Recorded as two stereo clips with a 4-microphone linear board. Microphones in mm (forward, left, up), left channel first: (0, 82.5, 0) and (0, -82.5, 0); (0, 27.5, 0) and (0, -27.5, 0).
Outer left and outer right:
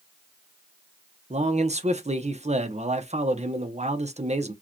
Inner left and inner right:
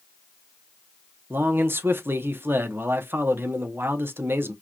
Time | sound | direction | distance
1.3 | a man speaking | 45° right (ahead or behind) | 0.9 m